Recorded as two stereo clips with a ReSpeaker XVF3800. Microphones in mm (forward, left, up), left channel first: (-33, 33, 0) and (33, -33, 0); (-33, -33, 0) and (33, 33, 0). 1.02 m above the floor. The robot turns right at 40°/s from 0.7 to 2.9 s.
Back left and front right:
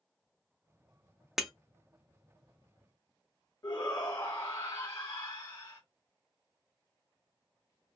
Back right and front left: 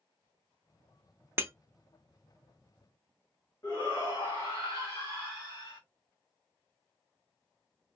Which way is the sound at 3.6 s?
Straight behind.